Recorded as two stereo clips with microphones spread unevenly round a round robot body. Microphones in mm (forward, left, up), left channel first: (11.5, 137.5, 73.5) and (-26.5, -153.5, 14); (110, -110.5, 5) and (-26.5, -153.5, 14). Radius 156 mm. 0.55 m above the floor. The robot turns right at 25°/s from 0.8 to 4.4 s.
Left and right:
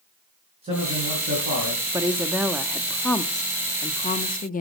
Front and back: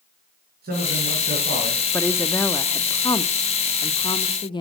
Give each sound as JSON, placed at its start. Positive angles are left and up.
{"t": 0.6, "sound": "a man speaking", "azimuth_deg": -170, "distance_m": 6.0}
{"t": 1.9, "sound": "a woman speaking", "azimuth_deg": -40, "distance_m": 0.7}